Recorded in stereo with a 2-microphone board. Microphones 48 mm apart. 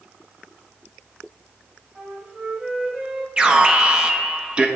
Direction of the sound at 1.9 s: 20° right (ahead or behind).